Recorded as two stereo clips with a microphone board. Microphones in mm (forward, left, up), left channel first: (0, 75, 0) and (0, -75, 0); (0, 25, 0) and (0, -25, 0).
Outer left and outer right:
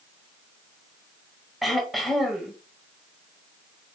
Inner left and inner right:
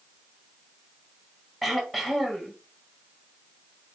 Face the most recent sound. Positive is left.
turn(degrees=0)  # may be behind; listen again after turning